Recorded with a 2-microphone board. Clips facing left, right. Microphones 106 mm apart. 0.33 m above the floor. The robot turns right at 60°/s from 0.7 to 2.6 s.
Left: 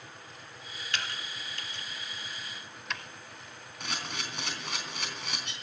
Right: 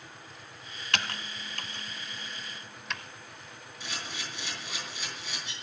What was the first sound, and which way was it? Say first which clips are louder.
Typing on a keyboard: right 3 dB; 70° right (ahead or behind).